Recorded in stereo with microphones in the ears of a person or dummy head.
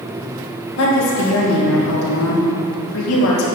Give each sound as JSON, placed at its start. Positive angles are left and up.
{"t": 0.8, "sound": "a woman speaking", "side_deg": 80, "distance_m": 2.0}